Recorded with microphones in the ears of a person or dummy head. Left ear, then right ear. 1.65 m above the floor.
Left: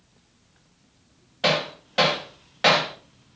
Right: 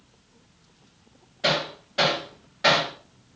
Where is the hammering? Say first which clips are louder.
Left 1 dB; 30° left (ahead or behind), 0.7 m.